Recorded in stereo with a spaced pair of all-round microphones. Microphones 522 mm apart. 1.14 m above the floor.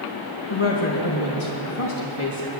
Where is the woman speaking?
65° left (ahead or behind), 1.5 m.